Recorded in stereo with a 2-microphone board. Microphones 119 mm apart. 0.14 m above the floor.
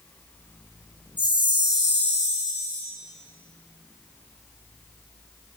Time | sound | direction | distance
1.2 | a chime | 35° right (ahead or behind) | 4.5 m